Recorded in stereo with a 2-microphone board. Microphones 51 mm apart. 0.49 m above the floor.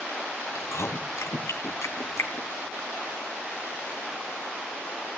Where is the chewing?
70° left (ahead or behind), 2.5 m.